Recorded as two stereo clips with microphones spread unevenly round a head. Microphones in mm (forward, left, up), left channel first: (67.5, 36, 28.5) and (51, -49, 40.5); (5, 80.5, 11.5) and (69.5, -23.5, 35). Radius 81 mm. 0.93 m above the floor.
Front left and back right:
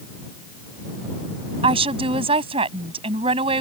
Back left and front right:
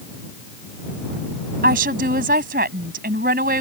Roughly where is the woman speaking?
Right.